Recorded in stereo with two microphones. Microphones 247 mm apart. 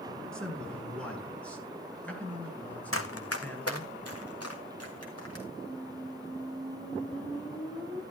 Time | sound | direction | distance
0.3 | a man speaking | 5° left (ahead or behind) | 5 m
2.9 | running footsteps | 60° left (ahead or behind) | 1.4 m
5.6 | a squeak | 5° right (ahead or behind) | 3 m